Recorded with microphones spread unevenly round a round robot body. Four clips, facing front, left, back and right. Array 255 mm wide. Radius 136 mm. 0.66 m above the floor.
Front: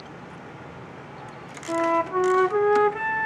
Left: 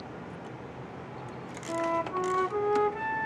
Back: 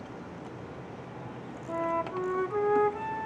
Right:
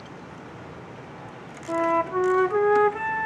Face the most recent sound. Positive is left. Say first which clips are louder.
# right 7 dB, front 8 dB
turn(degrees=-35)